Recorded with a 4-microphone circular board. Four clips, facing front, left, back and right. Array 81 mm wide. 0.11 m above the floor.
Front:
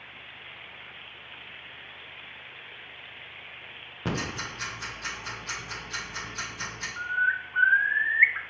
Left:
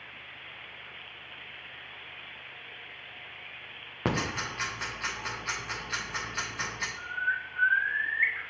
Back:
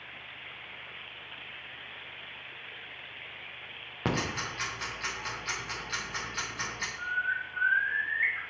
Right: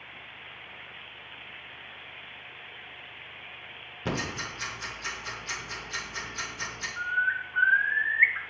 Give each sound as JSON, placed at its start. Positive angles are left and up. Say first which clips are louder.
{"t": 4.0, "sound": "ticking", "louder": "left 2 dB, back 1 dB", "azimuth_deg": 115, "distance_m": 3.5}
{"t": 7.0, "sound": "a bird", "louder": "right 5 dB, front 5 dB", "azimuth_deg": -25, "distance_m": 0.6}